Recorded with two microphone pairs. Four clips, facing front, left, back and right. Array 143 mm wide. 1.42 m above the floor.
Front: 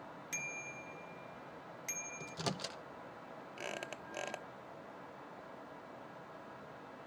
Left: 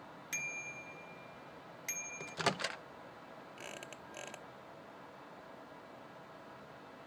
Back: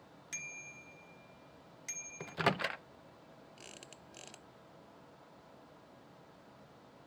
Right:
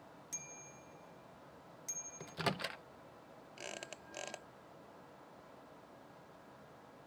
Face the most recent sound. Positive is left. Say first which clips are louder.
# right 3 dB, front 15 dB
turn(degrees=-10)